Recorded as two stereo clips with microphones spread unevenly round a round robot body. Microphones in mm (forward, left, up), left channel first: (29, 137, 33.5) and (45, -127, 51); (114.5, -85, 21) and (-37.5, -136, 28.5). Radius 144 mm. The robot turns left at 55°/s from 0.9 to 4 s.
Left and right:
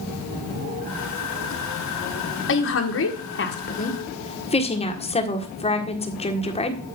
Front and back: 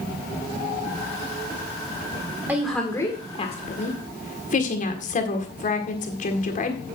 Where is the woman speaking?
115° left, 1.7 m; by 6.8 s 35° left, 1.7 m.